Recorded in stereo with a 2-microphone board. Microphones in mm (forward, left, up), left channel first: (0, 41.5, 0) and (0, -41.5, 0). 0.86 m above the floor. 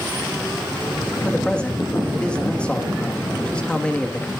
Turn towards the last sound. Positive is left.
turn(degrees=15)  # may be behind; listen again after turning